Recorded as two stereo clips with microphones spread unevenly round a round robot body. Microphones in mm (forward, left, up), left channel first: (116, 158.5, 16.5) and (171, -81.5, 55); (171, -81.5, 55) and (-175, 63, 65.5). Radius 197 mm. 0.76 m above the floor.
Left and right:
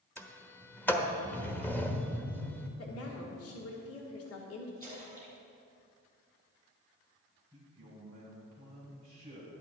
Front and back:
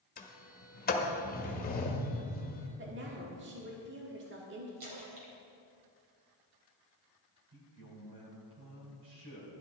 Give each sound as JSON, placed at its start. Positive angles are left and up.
{"t": 0.2, "sound": "a sliding door", "azimuth_deg": 30, "distance_m": 1.4}
{"t": 2.8, "sound": "a woman speaking", "azimuth_deg": 95, "distance_m": 1.5}
{"t": 4.8, "sound": "a splash", "azimuth_deg": -175, "distance_m": 3.0}
{"t": 7.5, "sound": "a man speaking", "azimuth_deg": 180, "distance_m": 3.5}